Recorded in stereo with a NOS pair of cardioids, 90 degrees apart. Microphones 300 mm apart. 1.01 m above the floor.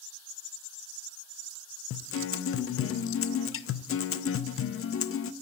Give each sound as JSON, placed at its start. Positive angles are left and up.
{"t": 1.9, "sound": "a guitar", "azimuth_deg": 45, "distance_m": 0.5}